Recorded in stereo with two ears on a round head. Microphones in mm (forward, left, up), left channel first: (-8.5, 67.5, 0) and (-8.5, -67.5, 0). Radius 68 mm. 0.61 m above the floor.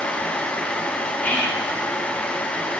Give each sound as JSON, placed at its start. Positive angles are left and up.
{"t": 1.2, "sound": "whispering", "side_deg": 10, "distance_m": 1.0}